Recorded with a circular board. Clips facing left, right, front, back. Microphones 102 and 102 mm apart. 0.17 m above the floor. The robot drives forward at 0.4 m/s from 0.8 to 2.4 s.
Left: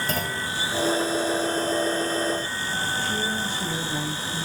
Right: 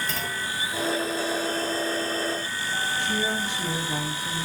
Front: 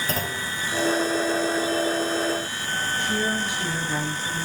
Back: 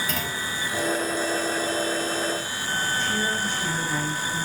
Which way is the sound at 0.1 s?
50° left.